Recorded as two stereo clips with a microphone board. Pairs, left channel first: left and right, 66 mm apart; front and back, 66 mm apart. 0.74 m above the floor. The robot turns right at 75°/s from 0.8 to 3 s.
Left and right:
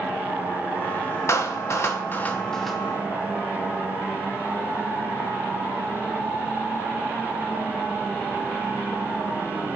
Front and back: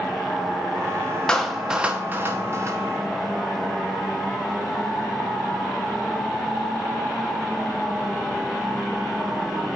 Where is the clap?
70° left, 1.0 m; by 2.8 s 175° right, 1.0 m.